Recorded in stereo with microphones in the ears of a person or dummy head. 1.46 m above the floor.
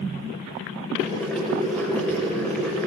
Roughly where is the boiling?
Centre.